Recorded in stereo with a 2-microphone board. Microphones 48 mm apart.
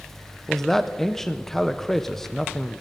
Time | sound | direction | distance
0.5 | a man speaking | 10° left (ahead or behind) | 0.6 m